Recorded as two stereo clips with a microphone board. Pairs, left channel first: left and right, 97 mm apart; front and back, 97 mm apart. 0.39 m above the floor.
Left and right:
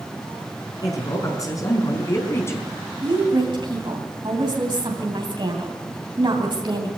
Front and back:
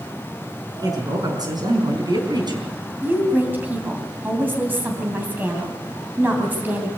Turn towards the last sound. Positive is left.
turn(degrees=-115)